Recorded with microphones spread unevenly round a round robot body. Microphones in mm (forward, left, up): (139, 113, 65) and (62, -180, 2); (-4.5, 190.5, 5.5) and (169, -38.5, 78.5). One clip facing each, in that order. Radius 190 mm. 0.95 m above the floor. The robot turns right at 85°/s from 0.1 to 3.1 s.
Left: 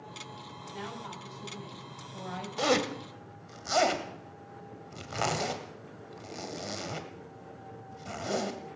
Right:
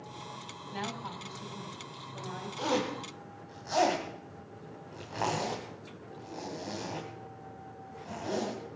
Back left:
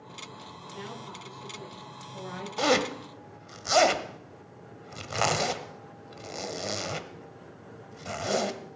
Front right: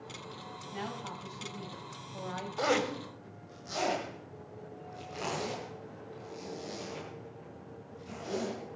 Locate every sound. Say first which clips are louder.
0.7 s a woman speaking: right 2 dB, front right 1 dB; 90° right, 6.5 m; by 2.5 s 60° left, 6.5 m
2.6 s a zipper: left 3 dB, back left 4 dB; 80° left, 1.7 m; by 8.6 s 120° left, 1.7 m